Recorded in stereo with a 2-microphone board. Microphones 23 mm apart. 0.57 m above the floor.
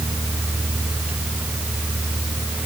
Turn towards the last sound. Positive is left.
No sound to turn to.